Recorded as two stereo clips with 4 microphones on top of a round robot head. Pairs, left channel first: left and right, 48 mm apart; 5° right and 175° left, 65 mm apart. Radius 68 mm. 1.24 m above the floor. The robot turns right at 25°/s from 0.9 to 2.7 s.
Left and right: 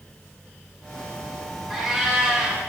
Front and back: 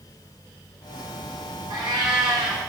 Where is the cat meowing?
175° left, 2.5 m; by 2.6 s 160° right, 2.5 m.